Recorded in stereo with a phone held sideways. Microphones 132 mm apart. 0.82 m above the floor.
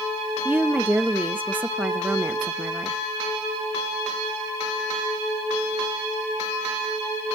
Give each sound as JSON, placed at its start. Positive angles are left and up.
{"t": 0.5, "sound": "a woman speaking", "side_deg": -15, "distance_m": 0.8}